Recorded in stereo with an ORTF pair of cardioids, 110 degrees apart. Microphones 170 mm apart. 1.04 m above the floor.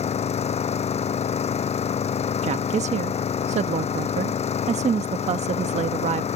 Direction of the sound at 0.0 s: 40° left.